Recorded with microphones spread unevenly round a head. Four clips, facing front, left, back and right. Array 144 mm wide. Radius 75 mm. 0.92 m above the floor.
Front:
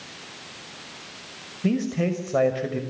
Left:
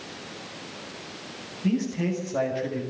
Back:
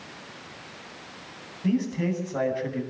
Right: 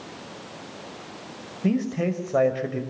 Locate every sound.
1.6 s a man speaking: 45° right, 5.5 m